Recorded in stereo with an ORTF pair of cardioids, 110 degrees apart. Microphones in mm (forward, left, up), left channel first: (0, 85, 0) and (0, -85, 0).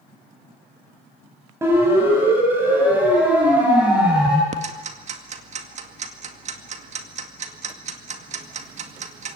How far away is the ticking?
About 2 m.